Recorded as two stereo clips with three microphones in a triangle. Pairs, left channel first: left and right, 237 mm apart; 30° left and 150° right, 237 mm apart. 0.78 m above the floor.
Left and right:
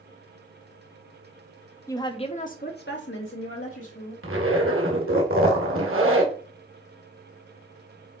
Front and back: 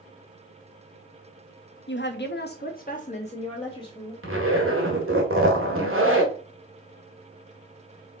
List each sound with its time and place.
1.9 s a woman speaking: 20° left, 1.0 m; by 4.1 s 100° left, 1.6 m
4.2 s a zipper: 120° right, 1.7 m